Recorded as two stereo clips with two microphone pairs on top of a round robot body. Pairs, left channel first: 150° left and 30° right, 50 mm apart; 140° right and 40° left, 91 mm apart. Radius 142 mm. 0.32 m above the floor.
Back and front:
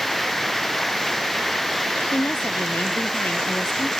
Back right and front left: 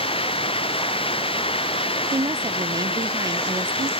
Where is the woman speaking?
90° left.